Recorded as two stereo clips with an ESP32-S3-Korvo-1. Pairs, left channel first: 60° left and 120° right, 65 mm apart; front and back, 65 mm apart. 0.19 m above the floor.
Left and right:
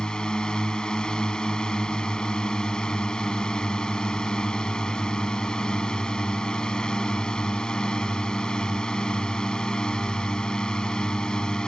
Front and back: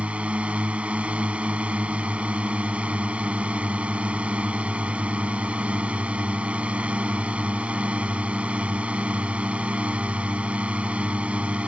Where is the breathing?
I don't hear breathing.